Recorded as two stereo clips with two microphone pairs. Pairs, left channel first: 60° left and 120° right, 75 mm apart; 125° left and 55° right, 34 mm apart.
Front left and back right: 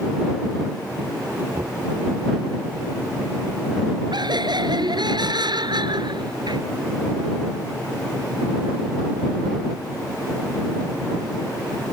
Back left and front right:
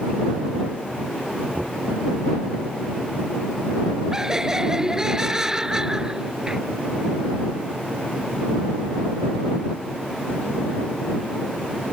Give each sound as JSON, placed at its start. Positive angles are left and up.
{"t": 1.5, "sound": "knocking", "azimuth_deg": -85}
{"t": 4.1, "sound": "laughter", "azimuth_deg": -130}